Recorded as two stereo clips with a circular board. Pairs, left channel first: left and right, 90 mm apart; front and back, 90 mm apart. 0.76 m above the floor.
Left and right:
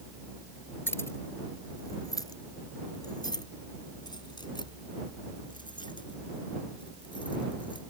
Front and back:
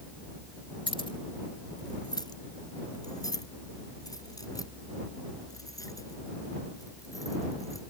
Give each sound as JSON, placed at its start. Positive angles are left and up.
{"t": 0.9, "sound": "keys jangling", "azimuth_deg": 25}